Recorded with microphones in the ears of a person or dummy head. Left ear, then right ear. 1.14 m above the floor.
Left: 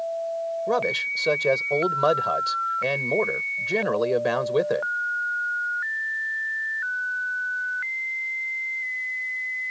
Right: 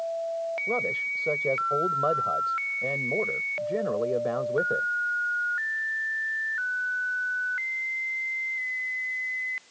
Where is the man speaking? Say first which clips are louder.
Left 5 dB; 80° left.